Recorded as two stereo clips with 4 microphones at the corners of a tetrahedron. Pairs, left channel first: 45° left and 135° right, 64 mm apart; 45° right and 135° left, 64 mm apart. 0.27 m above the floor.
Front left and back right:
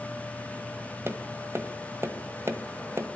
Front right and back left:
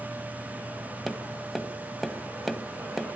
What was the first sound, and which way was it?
Tapping, 135° right.